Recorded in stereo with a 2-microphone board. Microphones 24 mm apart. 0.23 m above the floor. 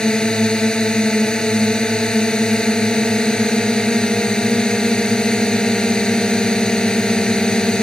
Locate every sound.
0.0 s a drone: 40° left (ahead or behind)